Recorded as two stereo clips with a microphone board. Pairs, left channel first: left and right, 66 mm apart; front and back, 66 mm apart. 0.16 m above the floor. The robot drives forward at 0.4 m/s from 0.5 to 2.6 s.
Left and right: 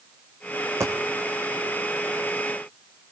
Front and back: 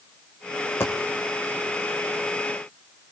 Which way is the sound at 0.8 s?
50° right.